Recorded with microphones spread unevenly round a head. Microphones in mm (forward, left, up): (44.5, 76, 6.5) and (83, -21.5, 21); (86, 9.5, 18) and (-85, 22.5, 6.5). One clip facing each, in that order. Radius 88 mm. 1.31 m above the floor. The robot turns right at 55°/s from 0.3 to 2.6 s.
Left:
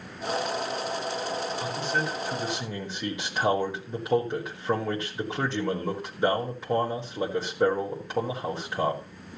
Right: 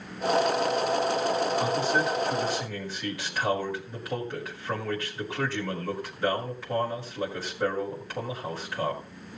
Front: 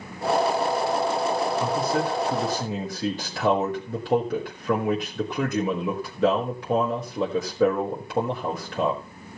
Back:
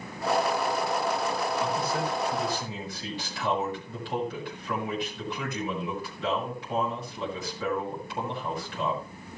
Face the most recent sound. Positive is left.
turn(degrees=40)